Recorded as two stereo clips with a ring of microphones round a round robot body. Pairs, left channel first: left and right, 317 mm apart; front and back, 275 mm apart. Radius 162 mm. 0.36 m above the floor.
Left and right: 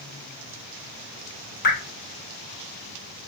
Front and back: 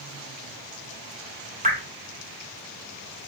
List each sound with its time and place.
1.6 s dripping: 130° left, 1.3 m